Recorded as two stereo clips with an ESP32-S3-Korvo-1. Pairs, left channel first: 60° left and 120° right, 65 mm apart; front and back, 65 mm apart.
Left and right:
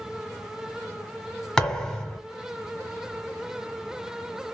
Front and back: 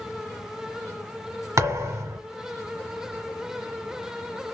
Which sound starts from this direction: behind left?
A thud, at 1.6 s.